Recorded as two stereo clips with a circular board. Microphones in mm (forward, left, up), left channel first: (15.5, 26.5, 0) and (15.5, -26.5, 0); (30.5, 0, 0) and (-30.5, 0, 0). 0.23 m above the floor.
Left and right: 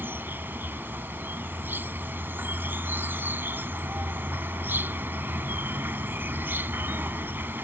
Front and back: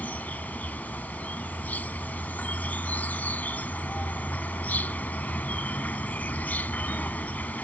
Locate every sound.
0.0 s an insect: 55° right